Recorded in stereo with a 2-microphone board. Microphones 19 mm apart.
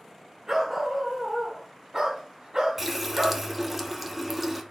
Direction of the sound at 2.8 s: 15° right (ahead or behind).